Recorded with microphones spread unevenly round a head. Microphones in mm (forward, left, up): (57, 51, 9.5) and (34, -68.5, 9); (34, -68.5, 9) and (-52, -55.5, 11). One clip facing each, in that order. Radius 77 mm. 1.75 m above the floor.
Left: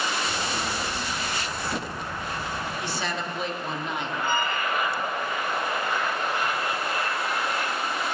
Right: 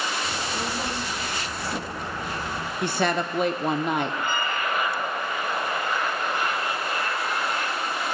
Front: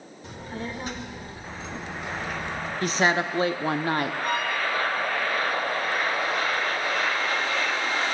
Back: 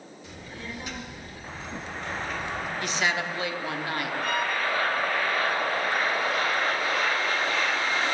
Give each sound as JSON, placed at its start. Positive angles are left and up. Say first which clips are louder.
{"t": 0.2, "sound": "a child speaking", "louder": "even, front 6 dB", "azimuth_deg": -55, "distance_m": 2.0}
{"t": 2.8, "sound": "a woman speaking", "louder": "right 6 dB, front 6 dB", "azimuth_deg": -65, "distance_m": 0.7}
{"t": 4.2, "sound": "a violin", "louder": "left 1 dB, front 1 dB", "azimuth_deg": 180, "distance_m": 4.0}